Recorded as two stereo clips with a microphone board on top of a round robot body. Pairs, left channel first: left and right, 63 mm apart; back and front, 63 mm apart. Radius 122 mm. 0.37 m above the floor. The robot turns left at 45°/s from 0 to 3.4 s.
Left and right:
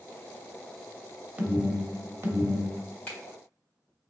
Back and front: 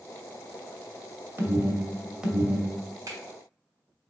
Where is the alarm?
30° right, 1.0 m; by 2.7 s 90° right, 1.0 m.